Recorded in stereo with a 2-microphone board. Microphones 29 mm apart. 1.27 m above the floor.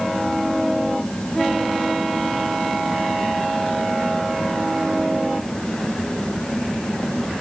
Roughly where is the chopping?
I don't hear chopping.